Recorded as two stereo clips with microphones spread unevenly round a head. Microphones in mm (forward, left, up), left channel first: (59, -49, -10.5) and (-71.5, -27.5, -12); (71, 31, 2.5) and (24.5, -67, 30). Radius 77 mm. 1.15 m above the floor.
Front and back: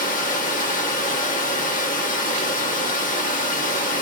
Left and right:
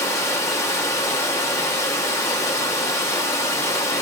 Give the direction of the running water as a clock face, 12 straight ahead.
12 o'clock.